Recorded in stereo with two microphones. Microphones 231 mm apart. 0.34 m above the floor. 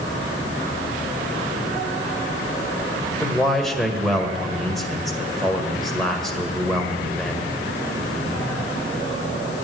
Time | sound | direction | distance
3.2 | a man speaking | centre (ahead or behind) | 1.6 m